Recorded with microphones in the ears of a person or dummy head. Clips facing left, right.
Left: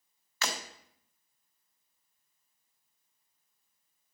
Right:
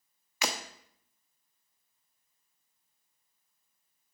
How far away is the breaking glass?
About 0.8 m.